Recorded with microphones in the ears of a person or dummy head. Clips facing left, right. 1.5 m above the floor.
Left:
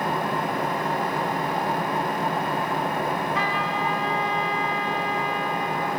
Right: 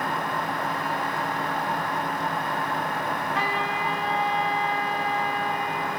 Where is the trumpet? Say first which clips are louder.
Left 2 dB; 75° left (ahead or behind), 8.5 m.